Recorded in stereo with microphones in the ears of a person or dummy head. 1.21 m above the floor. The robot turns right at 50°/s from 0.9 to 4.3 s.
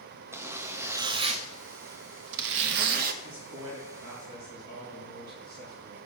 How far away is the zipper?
About 0.7 m.